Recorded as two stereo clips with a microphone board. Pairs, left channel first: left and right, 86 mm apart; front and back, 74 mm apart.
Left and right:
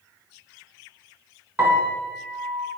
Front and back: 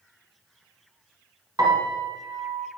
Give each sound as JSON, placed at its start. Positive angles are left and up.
{"t": 1.6, "sound": "a piano", "azimuth_deg": -150, "distance_m": 1.0}